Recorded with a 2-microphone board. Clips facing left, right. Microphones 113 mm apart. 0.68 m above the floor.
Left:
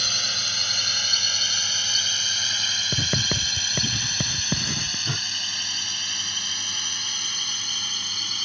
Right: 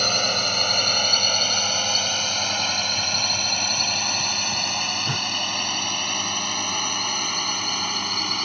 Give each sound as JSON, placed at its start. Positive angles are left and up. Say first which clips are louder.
{"t": 0.0, "sound": "a drone", "louder": "right 11 dB", "side_deg": -55}
{"t": 2.9, "sound": "writing", "louder": "even", "side_deg": 85}
{"t": 5.0, "sound": "a whoosh", "louder": "right 5 dB", "side_deg": -10}